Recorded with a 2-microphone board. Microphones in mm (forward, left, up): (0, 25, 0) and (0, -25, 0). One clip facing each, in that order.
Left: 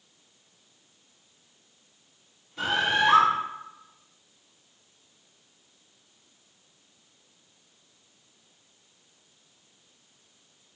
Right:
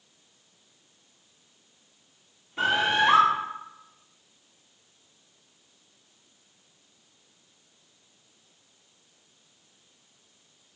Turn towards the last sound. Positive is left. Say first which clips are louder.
# right 1 dB
turn(degrees=-25)  # may be behind; listen again after turning